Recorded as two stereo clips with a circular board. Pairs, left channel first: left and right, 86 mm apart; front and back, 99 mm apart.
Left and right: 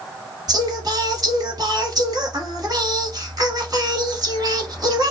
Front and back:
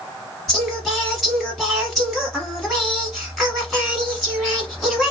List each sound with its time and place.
0.5 s singing: 90° right, 1.4 m